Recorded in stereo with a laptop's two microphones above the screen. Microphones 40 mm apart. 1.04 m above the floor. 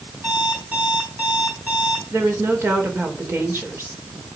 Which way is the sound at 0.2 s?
45° right (ahead or behind).